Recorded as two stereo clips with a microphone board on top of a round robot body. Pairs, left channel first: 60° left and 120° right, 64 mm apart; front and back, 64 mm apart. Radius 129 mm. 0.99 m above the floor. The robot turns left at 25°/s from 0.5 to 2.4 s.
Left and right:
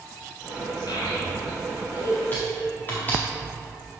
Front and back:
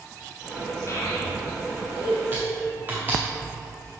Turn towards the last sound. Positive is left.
turn(degrees=115)